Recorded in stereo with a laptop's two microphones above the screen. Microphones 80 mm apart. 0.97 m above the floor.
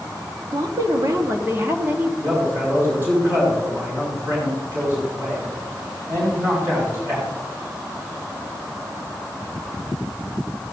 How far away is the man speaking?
About 5 m.